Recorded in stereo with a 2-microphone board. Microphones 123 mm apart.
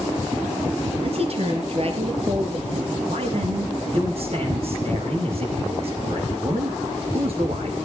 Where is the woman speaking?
50° right (ahead or behind), 3 m.